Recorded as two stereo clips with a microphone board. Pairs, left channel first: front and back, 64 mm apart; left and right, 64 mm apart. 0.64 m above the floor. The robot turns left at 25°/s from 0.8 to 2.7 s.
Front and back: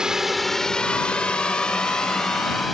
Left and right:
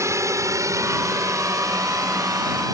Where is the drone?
105° right; by 2.8 s 90° right.